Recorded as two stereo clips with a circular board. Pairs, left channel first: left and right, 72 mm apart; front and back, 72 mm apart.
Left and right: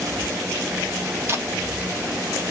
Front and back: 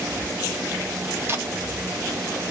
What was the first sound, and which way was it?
Tape being pulled, 135° right.